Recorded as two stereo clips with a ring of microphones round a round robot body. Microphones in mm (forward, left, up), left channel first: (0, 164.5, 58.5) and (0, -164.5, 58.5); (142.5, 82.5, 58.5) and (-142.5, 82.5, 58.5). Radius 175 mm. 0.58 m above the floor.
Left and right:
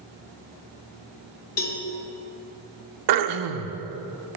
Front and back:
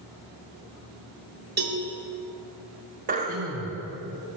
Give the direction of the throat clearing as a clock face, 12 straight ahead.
4 o'clock.